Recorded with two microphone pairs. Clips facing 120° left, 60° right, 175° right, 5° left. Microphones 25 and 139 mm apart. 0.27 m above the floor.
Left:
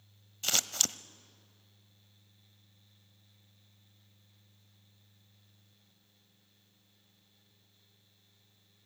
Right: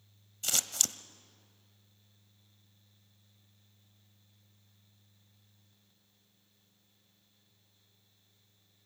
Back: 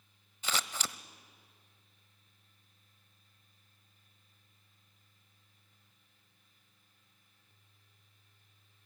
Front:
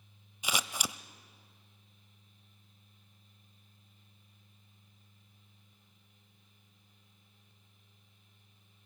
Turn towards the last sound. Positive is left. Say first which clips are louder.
# left 1 dB, front 1 dB
turn(degrees=75)